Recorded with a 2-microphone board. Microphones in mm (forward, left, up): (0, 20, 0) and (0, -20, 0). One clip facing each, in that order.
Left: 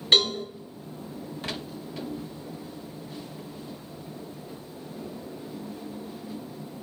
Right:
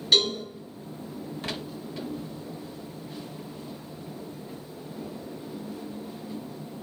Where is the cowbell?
40° left (ahead or behind), 2.0 m.